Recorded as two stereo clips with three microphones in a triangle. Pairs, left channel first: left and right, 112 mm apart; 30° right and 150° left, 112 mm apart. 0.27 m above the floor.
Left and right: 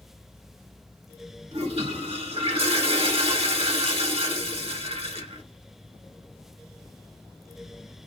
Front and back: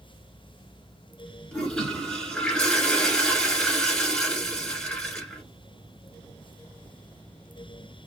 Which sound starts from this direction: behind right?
A toilet flushing, at 1.5 s.